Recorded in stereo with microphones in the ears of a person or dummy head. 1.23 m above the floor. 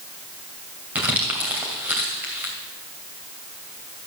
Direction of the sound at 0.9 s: 5° right (ahead or behind).